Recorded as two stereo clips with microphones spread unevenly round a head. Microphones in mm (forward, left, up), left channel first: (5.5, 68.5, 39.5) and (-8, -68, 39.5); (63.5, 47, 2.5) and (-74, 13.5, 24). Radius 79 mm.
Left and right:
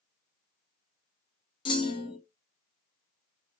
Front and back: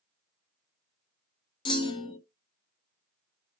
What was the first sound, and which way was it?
A clunk, 55° left.